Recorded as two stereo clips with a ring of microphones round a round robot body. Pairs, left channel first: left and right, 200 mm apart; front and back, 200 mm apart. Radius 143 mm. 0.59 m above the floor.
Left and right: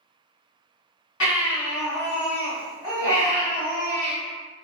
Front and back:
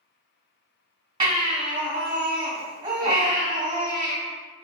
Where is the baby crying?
115° left, 1.7 m.